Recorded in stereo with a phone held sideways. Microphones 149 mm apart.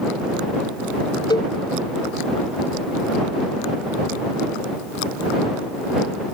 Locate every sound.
1.3 s a cowbell: 30° left (ahead or behind)